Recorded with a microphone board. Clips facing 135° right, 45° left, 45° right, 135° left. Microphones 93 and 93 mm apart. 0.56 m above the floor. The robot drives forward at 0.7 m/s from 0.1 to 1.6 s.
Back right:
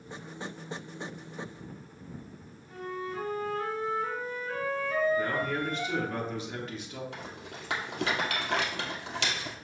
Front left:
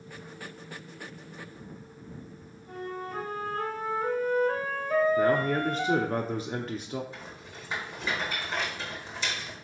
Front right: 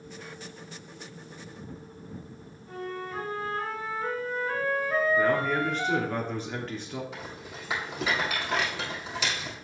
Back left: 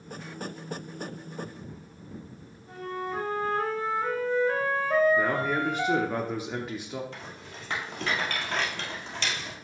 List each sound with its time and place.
2.7 s a flute: 75° left, 2.5 m
5.2 s a man speaking: 60° left, 0.8 m
7.1 s a rattle: 130° right, 2.5 m